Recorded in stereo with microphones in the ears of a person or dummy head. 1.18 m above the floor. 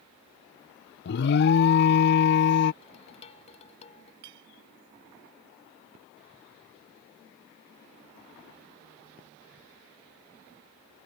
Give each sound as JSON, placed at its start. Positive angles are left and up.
{"t": 1.1, "sound": "an alarm", "side_deg": 50}
{"t": 2.8, "sound": "dishes clattering", "side_deg": 40}
{"t": 4.2, "sound": "a clink", "side_deg": -65}